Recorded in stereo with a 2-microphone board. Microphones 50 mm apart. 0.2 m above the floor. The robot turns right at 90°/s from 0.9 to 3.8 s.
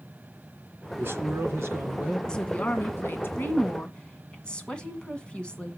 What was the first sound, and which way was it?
A man speaking, 125° right.